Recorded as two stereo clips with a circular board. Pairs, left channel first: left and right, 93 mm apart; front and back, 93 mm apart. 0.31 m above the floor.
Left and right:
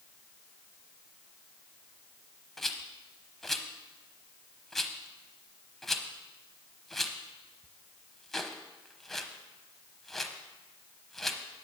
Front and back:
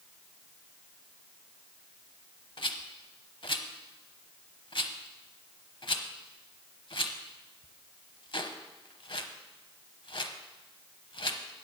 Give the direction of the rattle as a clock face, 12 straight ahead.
12 o'clock.